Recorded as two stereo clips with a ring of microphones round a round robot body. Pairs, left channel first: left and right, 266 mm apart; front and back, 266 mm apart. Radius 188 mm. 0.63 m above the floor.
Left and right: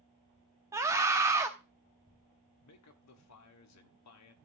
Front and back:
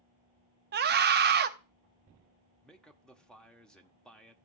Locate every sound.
0.7 s a scream: 165° right, 0.8 m
2.6 s a man speaking: 85° left, 1.5 m